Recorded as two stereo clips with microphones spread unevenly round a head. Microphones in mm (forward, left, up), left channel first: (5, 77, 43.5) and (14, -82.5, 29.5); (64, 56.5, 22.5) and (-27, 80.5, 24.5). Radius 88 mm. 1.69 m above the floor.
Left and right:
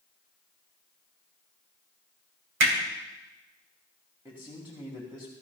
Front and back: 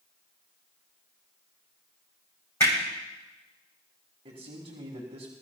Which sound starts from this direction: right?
Hammering, at 2.6 s.